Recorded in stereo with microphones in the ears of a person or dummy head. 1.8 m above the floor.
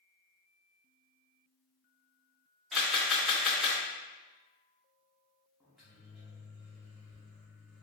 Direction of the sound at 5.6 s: Centre (ahead or behind).